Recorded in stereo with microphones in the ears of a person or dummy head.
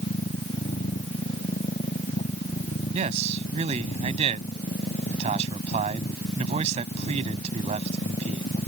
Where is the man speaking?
35° right (ahead or behind).